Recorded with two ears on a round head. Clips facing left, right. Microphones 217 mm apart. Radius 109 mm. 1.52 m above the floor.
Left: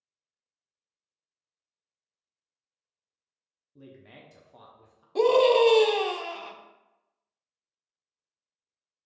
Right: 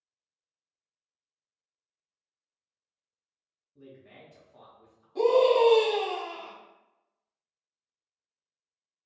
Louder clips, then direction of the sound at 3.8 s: Left 1 dB; 60° left (ahead or behind).